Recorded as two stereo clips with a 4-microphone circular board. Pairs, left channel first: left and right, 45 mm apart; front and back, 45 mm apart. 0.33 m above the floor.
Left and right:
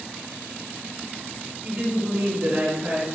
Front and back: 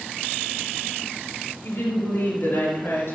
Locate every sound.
1.6 s a woman speaking: 35° right, 5 m; by 3.1 s 30° right, 4 m